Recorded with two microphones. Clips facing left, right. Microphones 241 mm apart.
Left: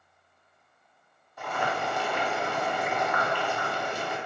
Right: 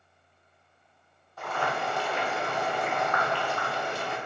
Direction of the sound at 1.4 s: 15° left (ahead or behind).